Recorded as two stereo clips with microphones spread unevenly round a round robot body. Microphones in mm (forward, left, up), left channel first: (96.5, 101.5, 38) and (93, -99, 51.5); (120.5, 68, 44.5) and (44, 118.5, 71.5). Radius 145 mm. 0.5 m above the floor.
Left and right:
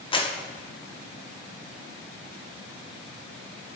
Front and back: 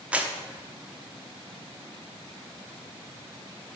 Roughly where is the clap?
Ahead left.